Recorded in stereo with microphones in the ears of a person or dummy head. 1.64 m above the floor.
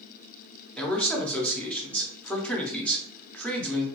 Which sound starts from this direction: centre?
A man speaking, at 0.8 s.